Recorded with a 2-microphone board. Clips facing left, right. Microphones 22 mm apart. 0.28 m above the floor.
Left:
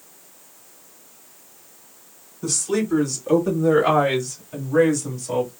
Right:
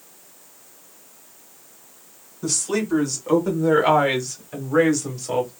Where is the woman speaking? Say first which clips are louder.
Left 1 dB; 15° right (ahead or behind), 2.5 m; by 5.5 s 30° right (ahead or behind), 1.3 m.